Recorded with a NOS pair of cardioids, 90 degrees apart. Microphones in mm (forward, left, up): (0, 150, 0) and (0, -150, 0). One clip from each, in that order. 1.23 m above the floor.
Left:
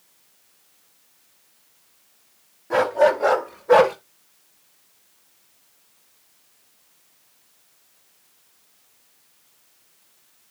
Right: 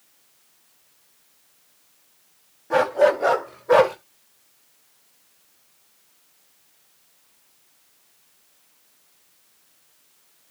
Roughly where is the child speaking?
I don't hear a child speaking.